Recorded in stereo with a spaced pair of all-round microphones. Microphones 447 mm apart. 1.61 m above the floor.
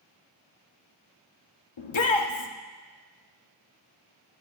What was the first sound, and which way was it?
A shout, 85° left.